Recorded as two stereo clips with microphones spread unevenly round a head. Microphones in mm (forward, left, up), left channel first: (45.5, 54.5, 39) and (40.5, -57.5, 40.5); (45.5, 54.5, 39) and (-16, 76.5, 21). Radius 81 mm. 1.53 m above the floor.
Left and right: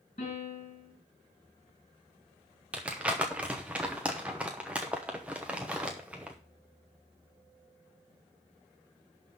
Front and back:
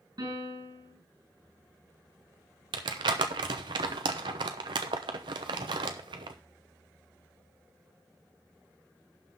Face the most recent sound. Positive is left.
turn(degrees=-175)